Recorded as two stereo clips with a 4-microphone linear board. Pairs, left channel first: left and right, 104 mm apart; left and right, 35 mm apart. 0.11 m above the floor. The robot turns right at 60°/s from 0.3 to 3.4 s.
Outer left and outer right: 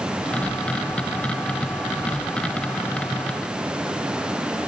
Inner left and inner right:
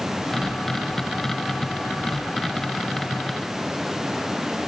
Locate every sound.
Only background noise.